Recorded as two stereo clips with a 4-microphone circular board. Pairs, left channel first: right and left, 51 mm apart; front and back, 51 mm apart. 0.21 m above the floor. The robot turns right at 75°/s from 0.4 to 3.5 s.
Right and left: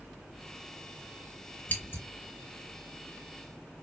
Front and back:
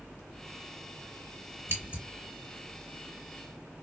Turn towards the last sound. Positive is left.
turn(degrees=-10)